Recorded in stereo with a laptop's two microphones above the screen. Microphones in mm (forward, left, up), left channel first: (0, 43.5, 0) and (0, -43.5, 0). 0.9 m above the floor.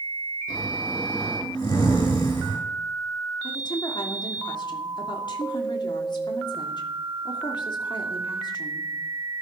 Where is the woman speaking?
60° left (ahead or behind), 2.5 m.